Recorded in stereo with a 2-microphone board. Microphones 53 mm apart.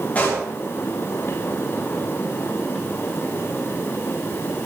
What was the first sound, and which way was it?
A pop, 30° left (ahead or behind).